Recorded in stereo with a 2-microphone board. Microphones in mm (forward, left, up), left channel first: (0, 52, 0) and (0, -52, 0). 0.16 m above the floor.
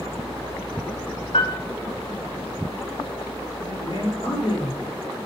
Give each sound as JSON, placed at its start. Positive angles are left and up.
{"t": 1.3, "sound": "a piano", "side_deg": 65, "distance_m": 1.6}
{"t": 3.7, "sound": "a man speaking", "side_deg": 55, "distance_m": 2.5}